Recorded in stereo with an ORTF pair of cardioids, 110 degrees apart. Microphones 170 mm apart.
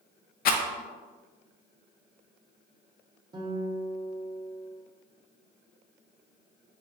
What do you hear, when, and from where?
0.5 s a rattle: 60° left, 0.6 m
3.3 s a guitar: 25° right, 0.8 m